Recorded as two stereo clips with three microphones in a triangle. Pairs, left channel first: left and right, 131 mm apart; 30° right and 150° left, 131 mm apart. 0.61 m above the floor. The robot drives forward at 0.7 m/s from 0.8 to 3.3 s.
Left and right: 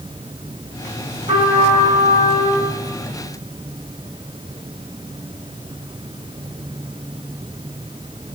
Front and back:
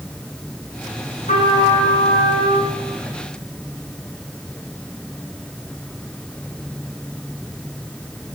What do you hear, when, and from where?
1.3 s a trumpet: 45° right, 3.5 m; by 2.7 s 60° right, 2.5 m